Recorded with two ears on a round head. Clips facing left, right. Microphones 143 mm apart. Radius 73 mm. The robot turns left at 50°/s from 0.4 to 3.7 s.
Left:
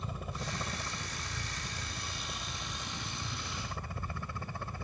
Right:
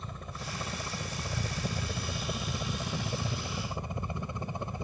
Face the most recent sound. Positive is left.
turn(degrees=-160)